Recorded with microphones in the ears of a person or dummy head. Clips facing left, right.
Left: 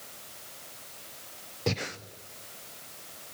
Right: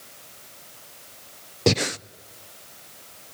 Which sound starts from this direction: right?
Breathing, at 1.7 s.